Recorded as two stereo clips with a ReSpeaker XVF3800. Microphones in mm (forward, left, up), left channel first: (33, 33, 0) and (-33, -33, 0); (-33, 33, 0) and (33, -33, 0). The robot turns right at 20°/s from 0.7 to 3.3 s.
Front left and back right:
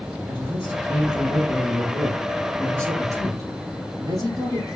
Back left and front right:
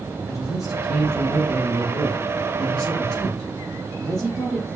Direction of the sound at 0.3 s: 160° left.